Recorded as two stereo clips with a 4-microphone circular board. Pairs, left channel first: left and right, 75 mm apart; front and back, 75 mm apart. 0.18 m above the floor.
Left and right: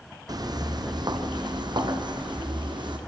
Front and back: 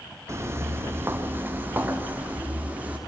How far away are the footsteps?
About 1.6 m.